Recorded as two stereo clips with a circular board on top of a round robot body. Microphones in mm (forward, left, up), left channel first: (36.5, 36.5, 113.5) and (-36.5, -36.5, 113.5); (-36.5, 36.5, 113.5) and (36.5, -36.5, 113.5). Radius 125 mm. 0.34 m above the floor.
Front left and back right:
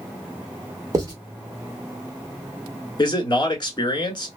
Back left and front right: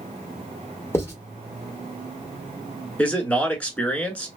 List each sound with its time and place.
0.9 s writing: 175° right, 1.8 m
3.0 s a man speaking: 65° left, 1.6 m